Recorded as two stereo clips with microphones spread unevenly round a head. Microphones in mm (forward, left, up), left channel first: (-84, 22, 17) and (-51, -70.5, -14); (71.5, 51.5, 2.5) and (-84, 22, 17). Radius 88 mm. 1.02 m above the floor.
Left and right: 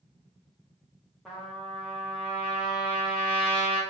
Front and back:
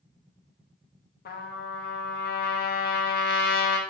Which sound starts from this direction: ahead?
A trumpet, at 1.2 s.